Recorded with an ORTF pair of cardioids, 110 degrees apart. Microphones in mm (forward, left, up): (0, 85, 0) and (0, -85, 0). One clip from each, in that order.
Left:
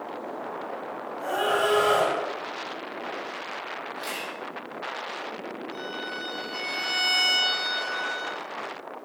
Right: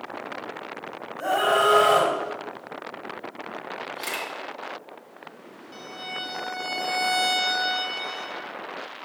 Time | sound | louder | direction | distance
1.2 | a scream | right 4 dB | 40° right | 3.5 m
4.0 | a camera shutter | right 4 dB | 40° right | 3 m
5.7 | a violin | right 2 dB | 40° right | 3.5 m